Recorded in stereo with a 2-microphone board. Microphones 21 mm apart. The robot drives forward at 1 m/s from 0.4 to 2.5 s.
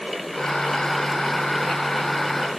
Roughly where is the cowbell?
No cowbell in this recording.